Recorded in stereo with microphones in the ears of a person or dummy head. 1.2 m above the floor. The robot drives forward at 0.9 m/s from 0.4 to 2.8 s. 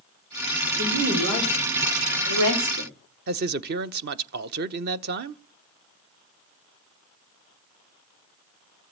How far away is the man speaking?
About 0.7 m.